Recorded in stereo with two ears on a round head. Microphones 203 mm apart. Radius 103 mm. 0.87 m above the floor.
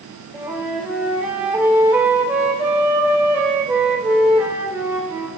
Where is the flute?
5° right (ahead or behind), 3.5 m.